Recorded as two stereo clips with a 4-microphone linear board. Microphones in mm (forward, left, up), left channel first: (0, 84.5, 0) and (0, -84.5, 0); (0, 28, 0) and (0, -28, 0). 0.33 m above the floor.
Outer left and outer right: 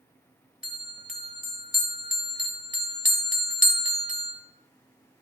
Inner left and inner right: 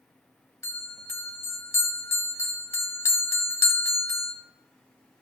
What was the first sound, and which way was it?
A bell, 50° left (ahead or behind).